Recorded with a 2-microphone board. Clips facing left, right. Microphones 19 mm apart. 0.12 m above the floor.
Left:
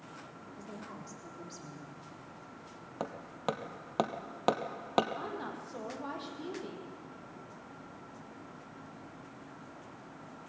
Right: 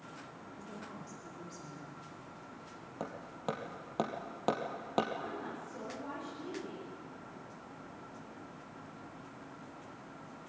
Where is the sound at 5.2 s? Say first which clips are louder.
Left 2 dB; 70° left (ahead or behind), 4.5 m.